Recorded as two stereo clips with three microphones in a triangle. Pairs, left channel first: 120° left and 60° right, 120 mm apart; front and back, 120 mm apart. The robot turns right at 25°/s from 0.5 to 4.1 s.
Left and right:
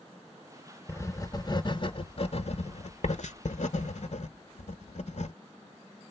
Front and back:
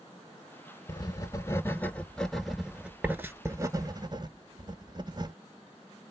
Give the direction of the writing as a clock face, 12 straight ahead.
10 o'clock.